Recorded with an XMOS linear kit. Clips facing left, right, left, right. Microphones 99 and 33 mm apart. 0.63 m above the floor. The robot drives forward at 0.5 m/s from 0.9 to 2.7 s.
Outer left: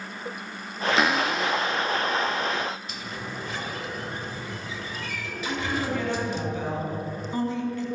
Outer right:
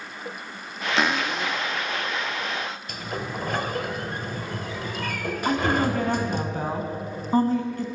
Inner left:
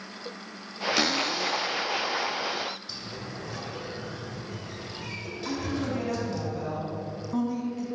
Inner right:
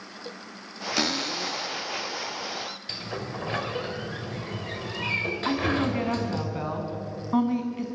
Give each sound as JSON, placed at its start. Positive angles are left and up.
{"t": 1.0, "sound": "a cupboard door", "side_deg": 0, "distance_m": 0.8}
{"t": 2.9, "sound": "a sliding door", "side_deg": -50, "distance_m": 2.5}
{"t": 5.5, "sound": "a woman speaking", "side_deg": -40, "distance_m": 5.5}